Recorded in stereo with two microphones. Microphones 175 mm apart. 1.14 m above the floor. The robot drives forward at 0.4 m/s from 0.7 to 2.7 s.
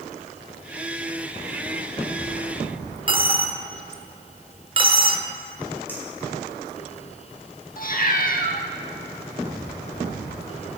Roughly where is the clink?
Centre.